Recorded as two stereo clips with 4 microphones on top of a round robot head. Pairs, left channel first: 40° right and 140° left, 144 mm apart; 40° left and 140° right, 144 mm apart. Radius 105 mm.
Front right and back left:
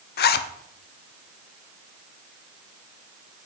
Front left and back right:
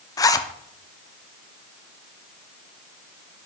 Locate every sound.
0.2 s a zipper: 30° right, 0.5 m